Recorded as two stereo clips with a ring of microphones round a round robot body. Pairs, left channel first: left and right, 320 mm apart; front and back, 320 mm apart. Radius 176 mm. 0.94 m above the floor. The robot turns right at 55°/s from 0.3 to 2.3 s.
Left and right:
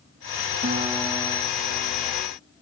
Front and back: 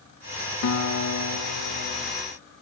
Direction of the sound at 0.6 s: 30° right.